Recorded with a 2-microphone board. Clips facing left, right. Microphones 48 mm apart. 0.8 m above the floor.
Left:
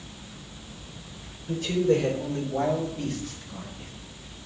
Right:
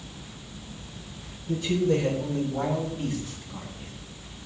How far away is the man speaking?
About 3.5 m.